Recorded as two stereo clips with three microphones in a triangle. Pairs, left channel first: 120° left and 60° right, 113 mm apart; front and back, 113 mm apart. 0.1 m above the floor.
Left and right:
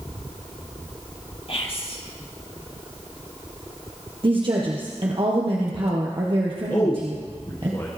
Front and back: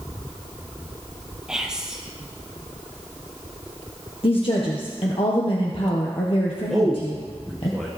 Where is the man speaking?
85° left, 1.7 m.